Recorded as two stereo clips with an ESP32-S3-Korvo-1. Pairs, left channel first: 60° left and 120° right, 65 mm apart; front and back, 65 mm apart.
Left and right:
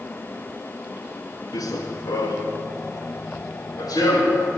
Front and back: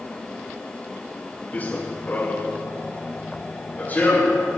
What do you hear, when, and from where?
1.5 s running footsteps: 60° left, 1.5 m